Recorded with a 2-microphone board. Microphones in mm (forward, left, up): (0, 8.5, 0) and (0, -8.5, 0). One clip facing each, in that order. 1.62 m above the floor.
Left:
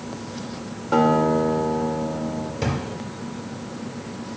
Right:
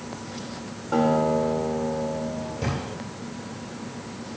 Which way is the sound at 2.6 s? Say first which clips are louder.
Left 4 dB; 35° left (ahead or behind).